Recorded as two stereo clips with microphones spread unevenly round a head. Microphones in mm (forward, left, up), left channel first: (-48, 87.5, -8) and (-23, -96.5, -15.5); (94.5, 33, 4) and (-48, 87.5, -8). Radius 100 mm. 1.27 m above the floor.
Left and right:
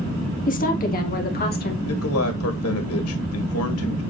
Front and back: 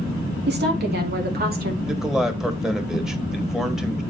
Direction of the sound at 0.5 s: 145° left.